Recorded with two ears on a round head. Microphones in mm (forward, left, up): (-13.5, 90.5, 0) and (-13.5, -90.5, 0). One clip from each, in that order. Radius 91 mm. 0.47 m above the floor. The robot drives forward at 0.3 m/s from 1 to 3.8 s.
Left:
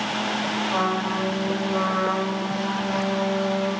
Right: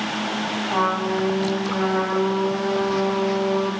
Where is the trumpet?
25° right (ahead or behind), 1.7 m; by 3.7 s 45° right (ahead or behind), 1.1 m.